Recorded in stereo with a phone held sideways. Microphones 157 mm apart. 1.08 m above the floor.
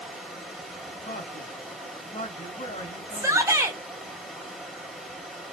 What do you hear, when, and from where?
0.0 s running water: centre (ahead or behind), 1.4 m
1.0 s a man speaking: 60° left (ahead or behind), 2.5 m
3.1 s a shout: 20° right (ahead or behind), 1.1 m